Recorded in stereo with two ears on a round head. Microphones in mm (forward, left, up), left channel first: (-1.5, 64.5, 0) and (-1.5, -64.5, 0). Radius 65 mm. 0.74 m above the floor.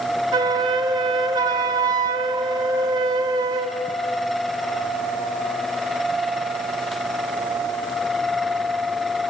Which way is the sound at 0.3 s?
30° right (ahead or behind).